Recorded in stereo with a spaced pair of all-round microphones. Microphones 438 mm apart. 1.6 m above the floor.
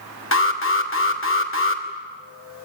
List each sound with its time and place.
0.3 s an alarm: 30° left (ahead or behind), 2.5 m